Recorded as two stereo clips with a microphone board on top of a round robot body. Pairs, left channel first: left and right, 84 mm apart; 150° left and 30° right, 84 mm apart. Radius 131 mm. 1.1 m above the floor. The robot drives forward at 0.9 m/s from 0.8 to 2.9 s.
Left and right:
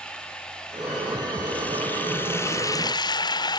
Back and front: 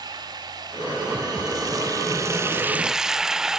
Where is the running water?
10° left, 2 m; by 3.6 s 55° left, 0.5 m.